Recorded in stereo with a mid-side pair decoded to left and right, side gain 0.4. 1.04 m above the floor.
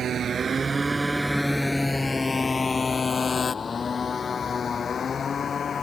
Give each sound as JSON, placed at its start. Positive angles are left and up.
{"t": 0.0, "sound": "a motorcycle", "azimuth_deg": -65}